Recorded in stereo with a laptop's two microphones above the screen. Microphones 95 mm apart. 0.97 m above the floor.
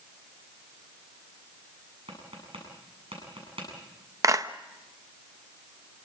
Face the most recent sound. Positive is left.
turn(degrees=-35)  # may be behind; listen again after turning